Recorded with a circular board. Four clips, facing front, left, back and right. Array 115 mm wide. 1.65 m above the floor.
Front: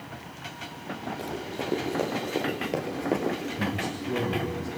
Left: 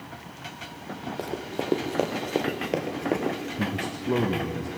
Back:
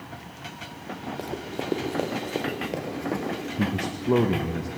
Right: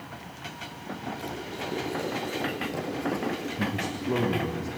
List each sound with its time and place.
1.2 s running footsteps: 115° left, 4 m; by 3.4 s 60° left, 2 m
3.6 s a man speaking: 170° left, 1.7 m